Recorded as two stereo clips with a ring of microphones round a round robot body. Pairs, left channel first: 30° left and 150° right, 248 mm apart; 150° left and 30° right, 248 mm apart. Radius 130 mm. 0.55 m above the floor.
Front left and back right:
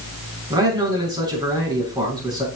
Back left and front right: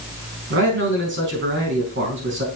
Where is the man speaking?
75° right, 4.5 m.